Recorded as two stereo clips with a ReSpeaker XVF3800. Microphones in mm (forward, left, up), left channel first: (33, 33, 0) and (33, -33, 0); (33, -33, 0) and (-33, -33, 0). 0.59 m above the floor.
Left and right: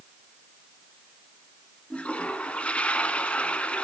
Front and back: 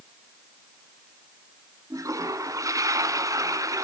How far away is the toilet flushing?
About 1.0 m.